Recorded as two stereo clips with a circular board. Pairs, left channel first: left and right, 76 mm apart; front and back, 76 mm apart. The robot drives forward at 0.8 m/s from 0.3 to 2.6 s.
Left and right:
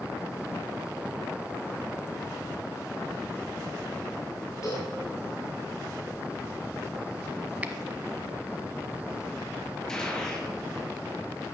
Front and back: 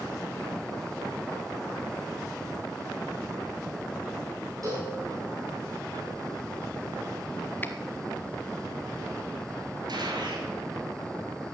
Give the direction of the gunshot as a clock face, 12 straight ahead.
6 o'clock.